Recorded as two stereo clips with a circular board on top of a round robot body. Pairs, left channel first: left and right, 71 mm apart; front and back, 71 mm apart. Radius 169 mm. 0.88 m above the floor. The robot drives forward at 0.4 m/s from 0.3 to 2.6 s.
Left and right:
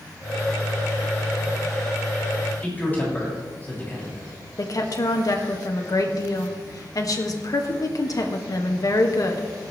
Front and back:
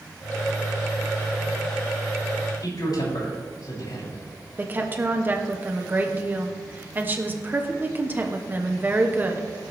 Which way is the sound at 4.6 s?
120° left.